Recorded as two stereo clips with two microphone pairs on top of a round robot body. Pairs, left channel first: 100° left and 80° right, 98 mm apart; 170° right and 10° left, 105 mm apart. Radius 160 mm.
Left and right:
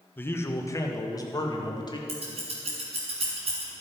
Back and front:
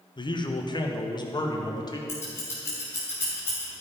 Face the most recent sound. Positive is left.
turn(degrees=-100)